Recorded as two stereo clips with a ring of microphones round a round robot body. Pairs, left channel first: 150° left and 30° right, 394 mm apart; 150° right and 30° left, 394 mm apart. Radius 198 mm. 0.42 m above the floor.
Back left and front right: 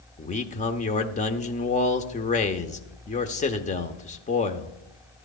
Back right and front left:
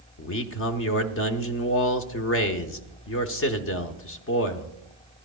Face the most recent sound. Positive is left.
turn(degrees=-155)